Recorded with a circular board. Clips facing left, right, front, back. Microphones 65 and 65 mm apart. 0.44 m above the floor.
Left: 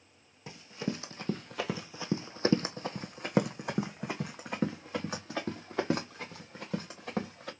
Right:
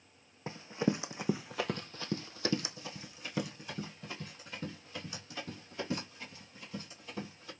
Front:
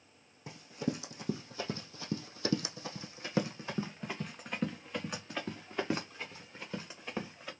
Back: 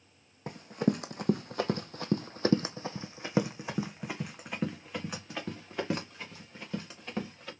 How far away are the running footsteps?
About 1.1 m.